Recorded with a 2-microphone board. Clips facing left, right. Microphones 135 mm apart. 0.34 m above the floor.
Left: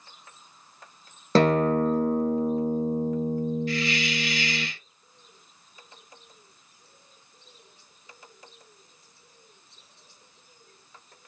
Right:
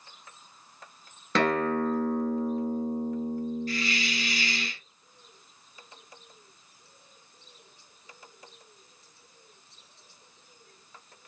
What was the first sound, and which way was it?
A guitar, 35° left (ahead or behind).